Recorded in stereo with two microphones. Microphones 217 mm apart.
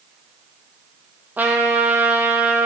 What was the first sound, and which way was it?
A trumpet, 5° right (ahead or behind).